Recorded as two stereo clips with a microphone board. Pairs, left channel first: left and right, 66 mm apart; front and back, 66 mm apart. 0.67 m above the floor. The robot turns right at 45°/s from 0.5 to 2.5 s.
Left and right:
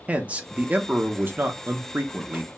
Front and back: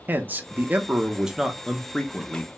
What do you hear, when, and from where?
0.1 s a man speaking: 140° right, 0.6 m; by 2.5 s 50° right, 0.6 m